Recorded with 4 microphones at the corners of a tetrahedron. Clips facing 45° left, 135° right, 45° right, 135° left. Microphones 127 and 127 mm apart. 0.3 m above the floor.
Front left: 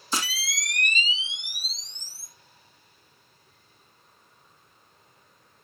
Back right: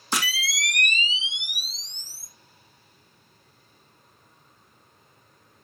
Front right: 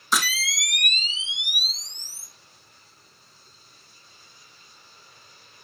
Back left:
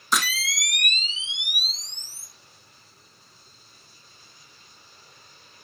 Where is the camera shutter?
135° right, 1.3 m.